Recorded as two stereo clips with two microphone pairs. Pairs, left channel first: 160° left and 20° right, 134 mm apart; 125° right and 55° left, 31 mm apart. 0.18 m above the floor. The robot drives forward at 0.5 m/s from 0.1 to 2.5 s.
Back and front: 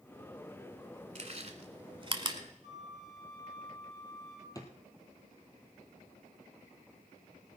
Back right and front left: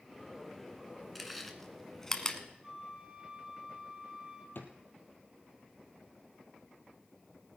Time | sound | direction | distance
1.1 | chewing | 35° right | 1.4 m
2.6 | a flute | straight ahead | 4.5 m
4.5 | a drawer | 135° right | 1.7 m